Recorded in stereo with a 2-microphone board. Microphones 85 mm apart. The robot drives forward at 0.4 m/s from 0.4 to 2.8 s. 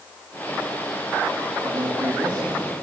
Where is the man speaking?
60° right (ahead or behind), 9 m; by 2.5 s 55° right (ahead or behind), 9 m.